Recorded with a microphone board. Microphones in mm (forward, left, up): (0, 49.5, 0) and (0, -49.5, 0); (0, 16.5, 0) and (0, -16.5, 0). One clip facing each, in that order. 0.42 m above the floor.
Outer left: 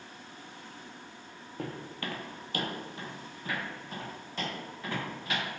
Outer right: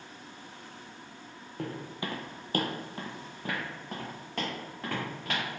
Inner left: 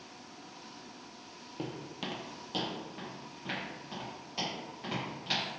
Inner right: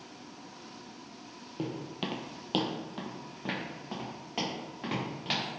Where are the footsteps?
Centre (ahead or behind), 0.6 m; by 5.4 s 55° right (ahead or behind), 1.9 m.